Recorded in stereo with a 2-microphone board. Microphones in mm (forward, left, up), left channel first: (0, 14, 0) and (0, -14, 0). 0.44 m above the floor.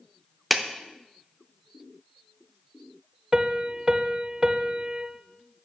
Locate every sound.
0.5 s a clap: centre (ahead or behind), 0.5 m
3.3 s a piano: 25° right (ahead or behind), 0.6 m